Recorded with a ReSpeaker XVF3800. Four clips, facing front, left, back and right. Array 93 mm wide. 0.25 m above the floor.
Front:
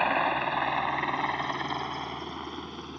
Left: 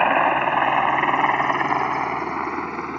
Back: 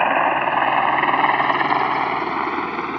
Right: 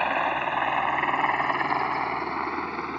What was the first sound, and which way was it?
A helicopter, 140° left.